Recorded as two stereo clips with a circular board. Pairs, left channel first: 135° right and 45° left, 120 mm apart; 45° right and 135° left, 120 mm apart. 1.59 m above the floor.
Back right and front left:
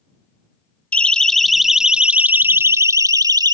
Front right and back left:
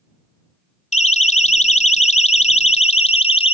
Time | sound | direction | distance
0.9 | a siren | 55° right | ?